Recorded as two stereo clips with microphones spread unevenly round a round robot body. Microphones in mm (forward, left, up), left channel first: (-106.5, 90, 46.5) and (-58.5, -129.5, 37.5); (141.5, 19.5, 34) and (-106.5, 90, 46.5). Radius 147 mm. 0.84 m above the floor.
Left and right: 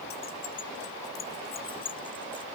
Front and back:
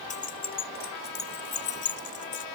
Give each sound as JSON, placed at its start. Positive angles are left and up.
{"t": 0.1, "sound": "keys jangling", "azimuth_deg": 45}